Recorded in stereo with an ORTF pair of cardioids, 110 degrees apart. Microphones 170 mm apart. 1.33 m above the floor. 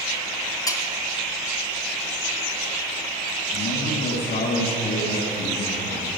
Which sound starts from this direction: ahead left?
A man speaking, at 3.5 s.